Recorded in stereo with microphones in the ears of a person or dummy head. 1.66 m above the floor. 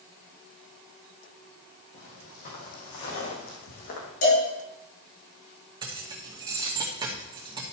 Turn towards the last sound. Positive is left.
turn(degrees=-30)  # may be behind; listen again after turning